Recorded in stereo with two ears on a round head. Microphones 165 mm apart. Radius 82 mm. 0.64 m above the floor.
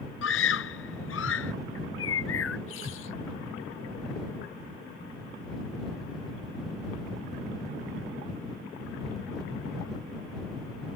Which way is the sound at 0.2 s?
75° left (ahead or behind).